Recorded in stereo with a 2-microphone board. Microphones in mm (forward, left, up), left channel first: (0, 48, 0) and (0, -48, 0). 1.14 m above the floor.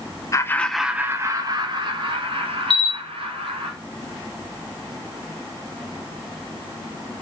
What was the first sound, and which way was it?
Laughter, 35° left (ahead or behind).